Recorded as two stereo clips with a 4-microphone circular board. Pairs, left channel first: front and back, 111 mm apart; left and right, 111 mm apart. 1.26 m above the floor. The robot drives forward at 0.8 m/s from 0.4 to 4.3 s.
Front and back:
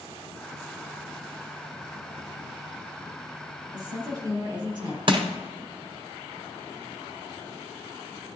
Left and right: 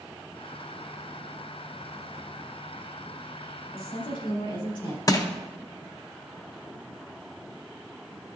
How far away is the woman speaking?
About 3 m.